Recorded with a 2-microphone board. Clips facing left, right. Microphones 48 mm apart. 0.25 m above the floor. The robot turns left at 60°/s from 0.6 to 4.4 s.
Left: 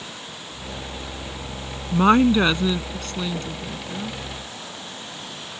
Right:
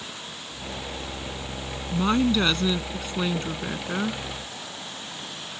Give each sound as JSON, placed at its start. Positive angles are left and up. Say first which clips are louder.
{"t": 1.9, "sound": "a woman speaking", "louder": "left 6 dB", "azimuth_deg": 55}